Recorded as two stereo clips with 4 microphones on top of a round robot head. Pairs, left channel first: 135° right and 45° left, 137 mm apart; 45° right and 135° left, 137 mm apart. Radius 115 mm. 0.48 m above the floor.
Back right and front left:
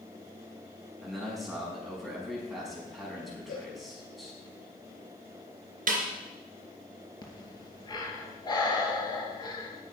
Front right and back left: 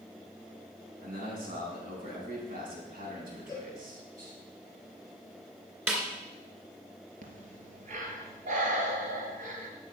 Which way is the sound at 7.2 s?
165° left.